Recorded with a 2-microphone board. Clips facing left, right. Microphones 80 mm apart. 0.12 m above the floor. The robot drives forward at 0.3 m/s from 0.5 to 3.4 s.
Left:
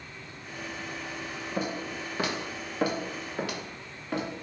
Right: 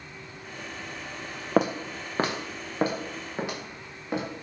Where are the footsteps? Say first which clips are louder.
Right 9 dB; 85° right, 0.6 m; by 4.2 s 15° right (ahead or behind), 2 m.